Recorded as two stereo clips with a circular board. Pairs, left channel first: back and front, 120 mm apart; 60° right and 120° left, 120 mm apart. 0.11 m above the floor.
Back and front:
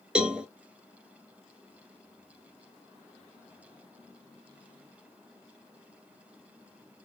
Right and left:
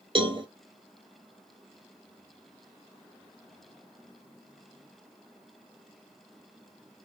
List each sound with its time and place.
0.1 s a cowbell: 80° left, 0.7 m